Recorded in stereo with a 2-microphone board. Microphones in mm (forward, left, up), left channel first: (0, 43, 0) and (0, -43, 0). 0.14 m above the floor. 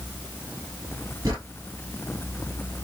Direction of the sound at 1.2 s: 50° right (ahead or behind).